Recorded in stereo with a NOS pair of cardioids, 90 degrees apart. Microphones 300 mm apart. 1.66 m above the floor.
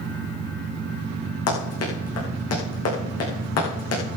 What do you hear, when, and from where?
1.5 s running footsteps: 55° left, 7.5 m